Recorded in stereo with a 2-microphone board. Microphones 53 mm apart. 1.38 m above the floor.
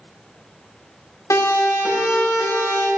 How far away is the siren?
About 7 m.